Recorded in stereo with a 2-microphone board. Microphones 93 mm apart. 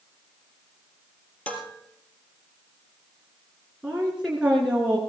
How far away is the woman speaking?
About 2.5 m.